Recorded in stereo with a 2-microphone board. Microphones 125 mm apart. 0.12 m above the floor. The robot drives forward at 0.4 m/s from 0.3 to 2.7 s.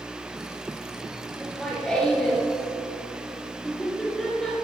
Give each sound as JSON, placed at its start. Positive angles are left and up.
{"t": 1.4, "sound": "laughter", "side_deg": 10, "distance_m": 1.9}